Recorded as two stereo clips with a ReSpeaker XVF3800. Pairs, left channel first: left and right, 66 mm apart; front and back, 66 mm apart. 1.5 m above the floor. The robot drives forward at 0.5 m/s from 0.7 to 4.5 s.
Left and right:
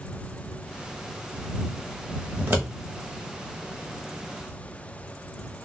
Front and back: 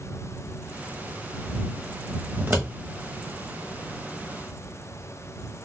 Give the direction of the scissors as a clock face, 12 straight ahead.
4 o'clock.